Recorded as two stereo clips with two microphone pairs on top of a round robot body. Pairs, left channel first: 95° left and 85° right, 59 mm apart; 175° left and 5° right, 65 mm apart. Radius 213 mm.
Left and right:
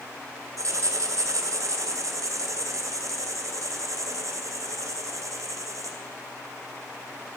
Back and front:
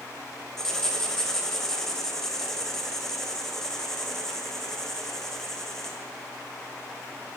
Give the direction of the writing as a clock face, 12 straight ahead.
3 o'clock.